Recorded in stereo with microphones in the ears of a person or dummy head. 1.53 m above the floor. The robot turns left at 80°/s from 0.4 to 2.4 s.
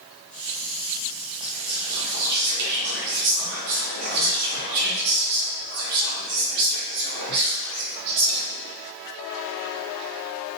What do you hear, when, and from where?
1.4 s whispering: 15° left, 0.7 m; by 8.8 s 65° right, 0.7 m